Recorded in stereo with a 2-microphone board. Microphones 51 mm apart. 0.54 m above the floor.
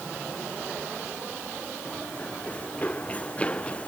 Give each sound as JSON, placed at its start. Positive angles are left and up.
{"t": 1.9, "sound": "running footsteps", "side_deg": 30}